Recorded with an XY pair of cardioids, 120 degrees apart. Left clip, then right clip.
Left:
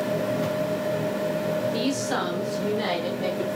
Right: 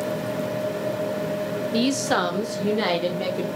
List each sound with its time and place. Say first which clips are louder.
1.7 s a woman speaking: right 4 dB; 30° right, 0.7 m; by 3.5 s 55° right, 1.7 m